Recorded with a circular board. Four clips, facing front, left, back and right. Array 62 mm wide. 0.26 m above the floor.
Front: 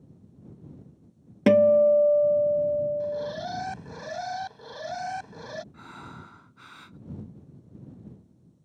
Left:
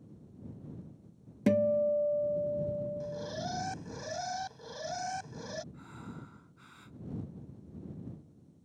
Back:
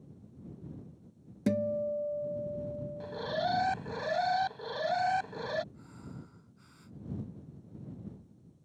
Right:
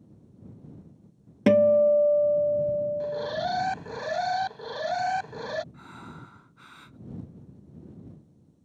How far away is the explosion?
No explosion in this recording.